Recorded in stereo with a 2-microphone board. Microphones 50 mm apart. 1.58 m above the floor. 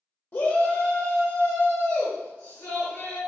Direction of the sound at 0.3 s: 50° left (ahead or behind).